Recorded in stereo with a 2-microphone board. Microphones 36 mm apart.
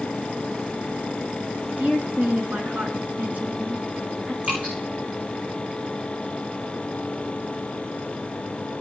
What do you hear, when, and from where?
1.8 s a woman speaking: 40° right (ahead or behind), 2 m
4.4 s dripping: 40° right (ahead or behind), 9.5 m